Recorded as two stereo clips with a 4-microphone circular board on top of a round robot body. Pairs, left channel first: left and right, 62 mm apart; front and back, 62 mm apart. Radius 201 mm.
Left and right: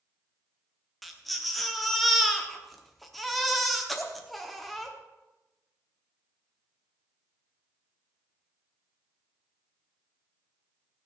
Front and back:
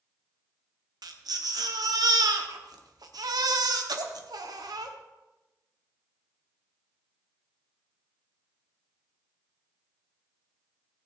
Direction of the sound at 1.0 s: Straight behind.